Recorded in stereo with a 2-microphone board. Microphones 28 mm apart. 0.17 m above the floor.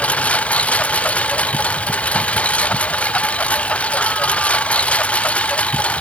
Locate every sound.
0.0 s a lawn mower: 60° left (ahead or behind); by 6.0 s 55° left (ahead or behind)